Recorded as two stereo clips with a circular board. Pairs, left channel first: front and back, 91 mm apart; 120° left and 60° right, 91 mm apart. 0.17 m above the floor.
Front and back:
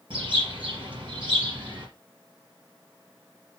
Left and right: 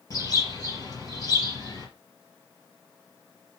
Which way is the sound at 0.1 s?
165° left.